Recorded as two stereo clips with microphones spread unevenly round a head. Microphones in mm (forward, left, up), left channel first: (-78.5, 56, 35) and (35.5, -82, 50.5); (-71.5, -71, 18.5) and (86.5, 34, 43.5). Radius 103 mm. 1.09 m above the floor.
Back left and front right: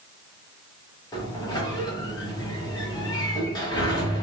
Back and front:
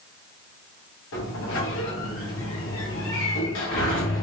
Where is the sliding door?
160° right, 0.8 m.